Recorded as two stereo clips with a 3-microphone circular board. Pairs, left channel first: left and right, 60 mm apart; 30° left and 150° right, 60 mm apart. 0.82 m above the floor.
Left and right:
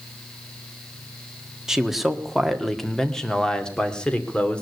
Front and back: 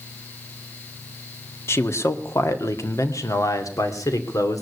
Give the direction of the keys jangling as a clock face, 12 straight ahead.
No keys jangling in this recording.